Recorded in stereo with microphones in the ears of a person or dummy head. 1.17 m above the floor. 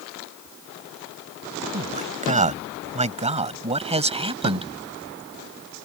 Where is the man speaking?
40° right (ahead or behind); by 4.7 s 30° right (ahead or behind).